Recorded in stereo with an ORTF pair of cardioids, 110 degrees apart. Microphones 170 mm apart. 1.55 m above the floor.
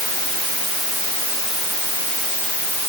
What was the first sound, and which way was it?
Only background noise.